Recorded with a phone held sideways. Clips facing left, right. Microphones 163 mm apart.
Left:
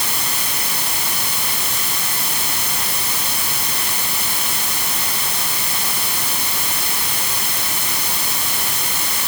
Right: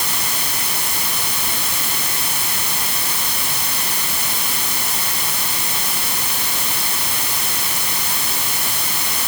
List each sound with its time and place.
Only background noise.